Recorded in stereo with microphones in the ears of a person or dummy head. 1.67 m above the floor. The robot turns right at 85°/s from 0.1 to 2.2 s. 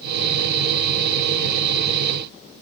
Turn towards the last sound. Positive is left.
No sound to turn to.